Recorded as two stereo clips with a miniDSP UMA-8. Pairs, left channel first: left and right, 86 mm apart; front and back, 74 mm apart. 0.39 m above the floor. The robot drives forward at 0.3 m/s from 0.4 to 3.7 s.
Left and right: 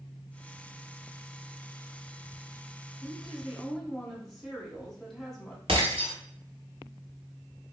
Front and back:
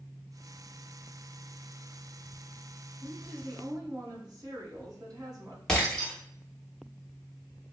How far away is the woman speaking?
About 1.3 m.